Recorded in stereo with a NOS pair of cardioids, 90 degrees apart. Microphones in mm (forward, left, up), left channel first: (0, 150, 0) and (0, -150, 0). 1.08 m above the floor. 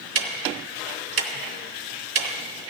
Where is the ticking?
45° right, 1.8 m.